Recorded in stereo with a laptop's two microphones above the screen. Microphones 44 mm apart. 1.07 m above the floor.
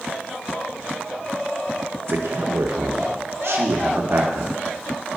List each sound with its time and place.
2.1 s a man speaking: 75° right (ahead or behind), 0.9 m